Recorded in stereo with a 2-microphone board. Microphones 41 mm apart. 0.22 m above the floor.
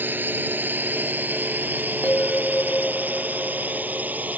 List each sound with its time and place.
0.0 s a drone: 55° right (ahead or behind); by 4.4 s 45° right (ahead or behind)
2.0 s a bell: 45° left (ahead or behind)